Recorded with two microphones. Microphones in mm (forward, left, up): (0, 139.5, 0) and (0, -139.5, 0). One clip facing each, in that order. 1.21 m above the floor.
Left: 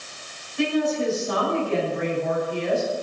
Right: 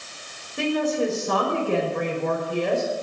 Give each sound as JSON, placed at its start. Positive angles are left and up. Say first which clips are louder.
{"t": 0.6, "sound": "a woman speaking", "louder": "left 1 dB", "side_deg": -85, "distance_m": 6.5}